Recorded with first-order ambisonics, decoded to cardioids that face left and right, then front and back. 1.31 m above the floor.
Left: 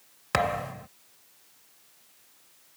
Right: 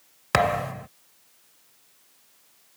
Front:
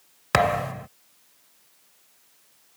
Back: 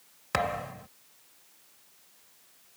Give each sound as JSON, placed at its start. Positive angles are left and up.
{"t": 0.3, "sound": "a thud", "azimuth_deg": -30}